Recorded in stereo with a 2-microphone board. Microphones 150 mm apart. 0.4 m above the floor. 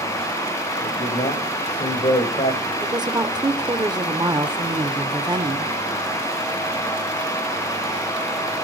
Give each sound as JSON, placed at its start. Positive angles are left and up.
{"t": 0.8, "sound": "a man speaking", "side_deg": 50, "distance_m": 2.0}
{"t": 2.8, "sound": "a woman speaking", "side_deg": -25, "distance_m": 0.9}